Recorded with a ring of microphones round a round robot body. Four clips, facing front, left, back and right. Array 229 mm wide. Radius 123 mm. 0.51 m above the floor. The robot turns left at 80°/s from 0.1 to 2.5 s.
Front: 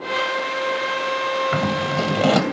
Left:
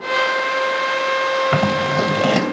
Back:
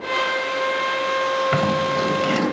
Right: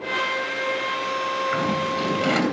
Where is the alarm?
No alarm in this recording.